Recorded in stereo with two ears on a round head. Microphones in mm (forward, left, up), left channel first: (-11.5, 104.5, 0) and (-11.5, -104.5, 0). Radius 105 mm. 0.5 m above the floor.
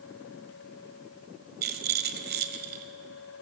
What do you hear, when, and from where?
1.6 s a rattle: 45° right (ahead or behind), 1.5 m